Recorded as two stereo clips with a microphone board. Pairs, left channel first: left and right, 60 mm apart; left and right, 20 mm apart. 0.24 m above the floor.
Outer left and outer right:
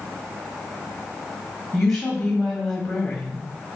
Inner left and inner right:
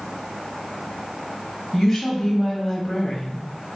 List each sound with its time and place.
1.7 s a woman speaking: 5° left (ahead or behind), 1.2 m